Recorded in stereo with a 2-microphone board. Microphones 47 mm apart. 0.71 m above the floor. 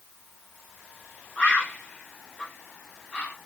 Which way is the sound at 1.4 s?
25° left (ahead or behind).